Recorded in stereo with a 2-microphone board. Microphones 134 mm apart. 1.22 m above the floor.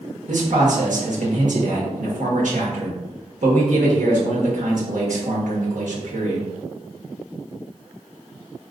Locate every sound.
0.3 s a man speaking: 75° right (ahead or behind), 1.3 m